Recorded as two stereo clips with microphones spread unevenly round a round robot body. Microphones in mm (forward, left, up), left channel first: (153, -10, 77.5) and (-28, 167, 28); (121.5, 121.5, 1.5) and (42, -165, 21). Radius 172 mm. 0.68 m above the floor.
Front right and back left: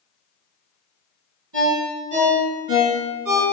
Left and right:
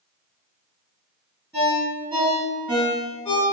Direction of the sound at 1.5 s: 165° left.